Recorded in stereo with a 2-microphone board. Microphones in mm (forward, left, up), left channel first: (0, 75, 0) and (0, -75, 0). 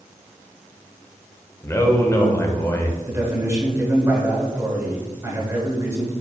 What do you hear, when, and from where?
1.6 s a man speaking: 20° left (ahead or behind), 0.8 m
3.1 s a man speaking: 20° right (ahead or behind), 1.4 m